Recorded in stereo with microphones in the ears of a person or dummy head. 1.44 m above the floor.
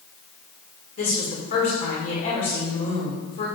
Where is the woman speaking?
50° left (ahead or behind), 5 m.